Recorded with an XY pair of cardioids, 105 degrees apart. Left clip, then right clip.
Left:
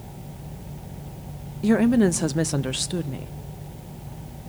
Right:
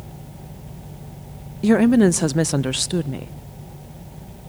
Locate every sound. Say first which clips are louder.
1.6 s a woman speaking: right 4 dB; 30° right, 0.6 m